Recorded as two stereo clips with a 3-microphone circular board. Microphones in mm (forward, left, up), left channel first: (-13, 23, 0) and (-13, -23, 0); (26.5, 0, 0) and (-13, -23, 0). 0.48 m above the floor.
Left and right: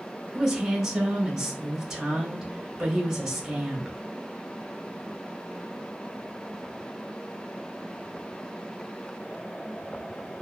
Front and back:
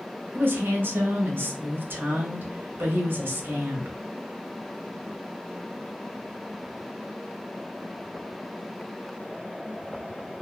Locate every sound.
0.3 s a woman speaking: 170° right, 1.1 m